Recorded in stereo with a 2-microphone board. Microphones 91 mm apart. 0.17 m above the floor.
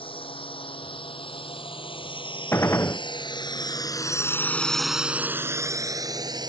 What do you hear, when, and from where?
0.0 s a drone: 80° left; by 6.5 s 50° right (ahead or behind)
2.5 s a gunshot: 30° left (ahead or behind)